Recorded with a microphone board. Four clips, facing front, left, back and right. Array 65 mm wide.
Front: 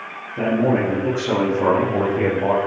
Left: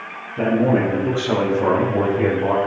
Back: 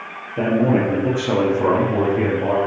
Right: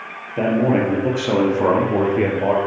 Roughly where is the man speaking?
Right.